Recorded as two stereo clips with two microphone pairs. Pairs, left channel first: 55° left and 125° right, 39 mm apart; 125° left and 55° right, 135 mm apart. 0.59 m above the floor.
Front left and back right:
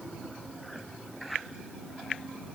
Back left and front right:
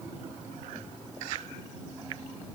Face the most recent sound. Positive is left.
No sound to turn to.